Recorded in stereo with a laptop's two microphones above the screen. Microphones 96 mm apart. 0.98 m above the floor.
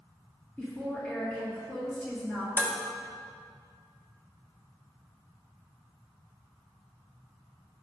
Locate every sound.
0.6 s a woman speaking: 15° left (ahead or behind), 1.6 m
2.6 s dishes clattering: 20° left (ahead or behind), 1.1 m